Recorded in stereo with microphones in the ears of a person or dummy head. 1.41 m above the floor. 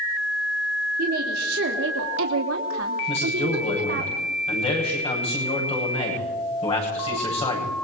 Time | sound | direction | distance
1.0 | a woman speaking | 45° right (ahead or behind) | 3.5 m
3.1 | a man speaking | 30° left (ahead or behind) | 9.5 m